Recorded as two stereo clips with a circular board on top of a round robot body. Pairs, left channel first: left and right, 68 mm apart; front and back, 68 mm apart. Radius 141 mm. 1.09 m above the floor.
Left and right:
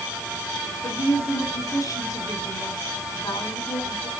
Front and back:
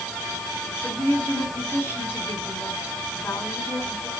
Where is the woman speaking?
60° left, 10 m.